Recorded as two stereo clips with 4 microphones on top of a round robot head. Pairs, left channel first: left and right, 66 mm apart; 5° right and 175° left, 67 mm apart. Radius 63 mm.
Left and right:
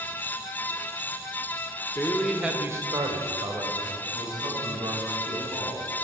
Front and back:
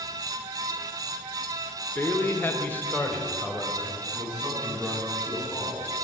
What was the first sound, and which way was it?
A man speaking, 35° left.